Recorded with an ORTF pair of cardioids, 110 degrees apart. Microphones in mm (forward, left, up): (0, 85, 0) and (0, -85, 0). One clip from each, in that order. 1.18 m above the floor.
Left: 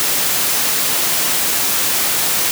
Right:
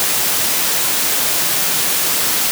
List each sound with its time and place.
Only background noise.